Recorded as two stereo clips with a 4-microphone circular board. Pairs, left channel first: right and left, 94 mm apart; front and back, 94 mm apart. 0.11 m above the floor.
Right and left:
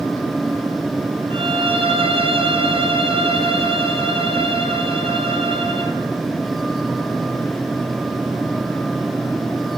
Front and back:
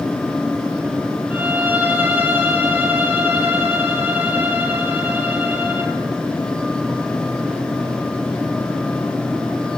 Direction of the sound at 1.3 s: 105° left.